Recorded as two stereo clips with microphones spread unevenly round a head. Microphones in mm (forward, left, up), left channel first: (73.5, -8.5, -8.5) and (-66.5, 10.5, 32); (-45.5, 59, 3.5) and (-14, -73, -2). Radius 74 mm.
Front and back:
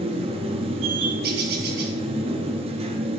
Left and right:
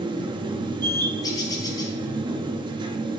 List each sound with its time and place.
0.0 s a machine running: 135° right, 0.9 m
1.2 s a bird: 165° left, 1.3 m